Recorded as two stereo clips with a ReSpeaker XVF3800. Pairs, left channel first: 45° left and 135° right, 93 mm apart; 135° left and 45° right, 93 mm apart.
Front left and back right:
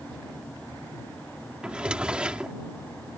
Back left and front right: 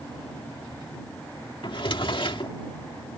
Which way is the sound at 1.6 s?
145° left.